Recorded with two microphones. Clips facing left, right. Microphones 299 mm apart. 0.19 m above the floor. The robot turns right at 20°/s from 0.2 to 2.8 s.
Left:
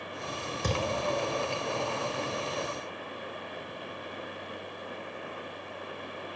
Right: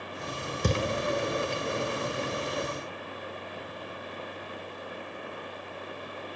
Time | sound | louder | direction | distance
0.6 | a thud | right 3 dB | 40° right (ahead or behind) | 0.9 m